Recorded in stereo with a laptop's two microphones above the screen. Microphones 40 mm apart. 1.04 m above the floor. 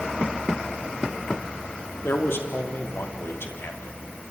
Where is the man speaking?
75° left (ahead or behind), 3 m.